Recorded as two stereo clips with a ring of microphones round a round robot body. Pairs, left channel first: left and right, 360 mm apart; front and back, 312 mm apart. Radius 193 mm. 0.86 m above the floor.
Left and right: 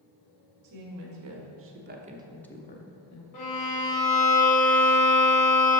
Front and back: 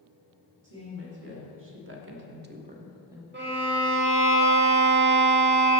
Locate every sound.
0.6 s a woman speaking: 125° right, 2 m; by 3.2 s 95° left, 1.1 m
3.3 s a violin: 125° left, 1.6 m